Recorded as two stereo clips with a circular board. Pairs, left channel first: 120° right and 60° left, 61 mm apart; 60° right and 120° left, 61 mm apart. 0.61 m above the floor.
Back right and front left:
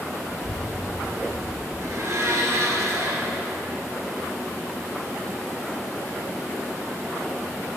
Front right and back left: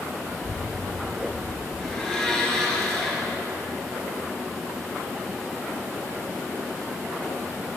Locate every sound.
0.3 s a child speaking: 135° right, 5 m
1.8 s a blender: 25° left, 3 m